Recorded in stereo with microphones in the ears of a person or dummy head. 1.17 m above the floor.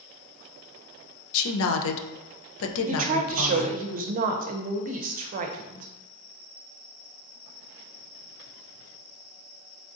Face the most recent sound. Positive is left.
turn(degrees=-40)  # may be behind; listen again after turning